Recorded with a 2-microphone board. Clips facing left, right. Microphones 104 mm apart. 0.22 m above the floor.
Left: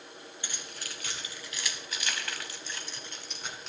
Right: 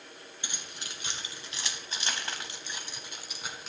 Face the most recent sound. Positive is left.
turn(degrees=-5)  # may be behind; listen again after turning